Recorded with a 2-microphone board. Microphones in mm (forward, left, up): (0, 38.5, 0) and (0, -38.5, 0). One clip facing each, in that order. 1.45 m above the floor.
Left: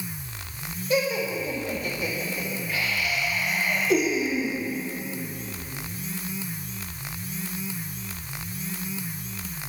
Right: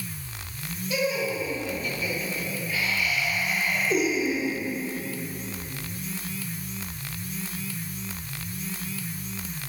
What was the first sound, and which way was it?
Laughter, 55° left (ahead or behind).